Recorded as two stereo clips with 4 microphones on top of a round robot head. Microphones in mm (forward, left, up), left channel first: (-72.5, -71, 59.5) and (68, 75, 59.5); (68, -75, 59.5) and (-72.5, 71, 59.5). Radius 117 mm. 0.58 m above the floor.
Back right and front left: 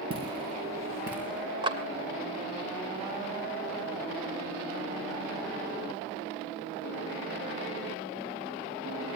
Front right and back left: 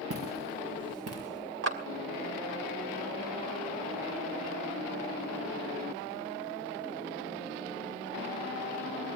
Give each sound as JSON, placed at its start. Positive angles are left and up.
{"t": 0.1, "sound": "footsteps", "azimuth_deg": 110, "distance_m": 5.0}
{"t": 1.6, "sound": "a clap", "azimuth_deg": 110, "distance_m": 2.5}